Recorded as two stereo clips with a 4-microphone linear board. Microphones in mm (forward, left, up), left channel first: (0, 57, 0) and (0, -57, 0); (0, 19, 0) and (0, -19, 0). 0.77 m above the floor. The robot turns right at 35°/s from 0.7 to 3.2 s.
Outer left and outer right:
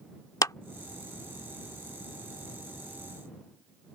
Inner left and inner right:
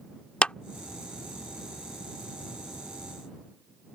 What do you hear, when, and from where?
0.4 s a clap: 30° left (ahead or behind)